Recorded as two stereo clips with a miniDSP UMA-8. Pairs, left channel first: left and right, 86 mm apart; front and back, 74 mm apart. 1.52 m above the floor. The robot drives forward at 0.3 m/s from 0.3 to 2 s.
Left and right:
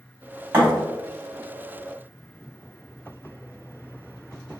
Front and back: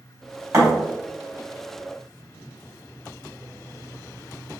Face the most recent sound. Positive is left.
turn(degrees=-155)